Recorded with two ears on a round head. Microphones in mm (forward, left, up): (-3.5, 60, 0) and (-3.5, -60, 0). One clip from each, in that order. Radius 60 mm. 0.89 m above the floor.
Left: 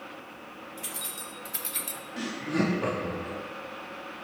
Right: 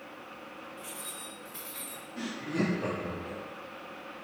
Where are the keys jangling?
70° left (ahead or behind), 2 m; by 2.0 s 60° left (ahead or behind), 0.9 m.